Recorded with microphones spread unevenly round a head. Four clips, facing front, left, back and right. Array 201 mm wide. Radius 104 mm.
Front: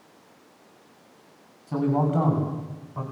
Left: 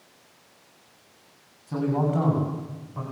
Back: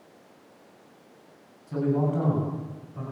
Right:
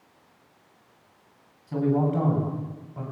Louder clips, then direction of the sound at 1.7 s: Right 1 dB, front 2 dB; straight ahead.